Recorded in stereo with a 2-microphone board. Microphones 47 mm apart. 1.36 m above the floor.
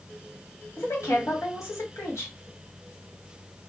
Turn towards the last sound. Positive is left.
turn(degrees=75)  # may be behind; listen again after turning